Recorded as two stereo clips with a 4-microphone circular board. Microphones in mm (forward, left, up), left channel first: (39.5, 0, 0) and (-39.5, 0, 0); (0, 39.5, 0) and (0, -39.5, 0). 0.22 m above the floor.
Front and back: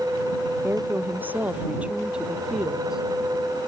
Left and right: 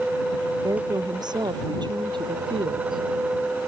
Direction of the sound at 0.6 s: 120° right.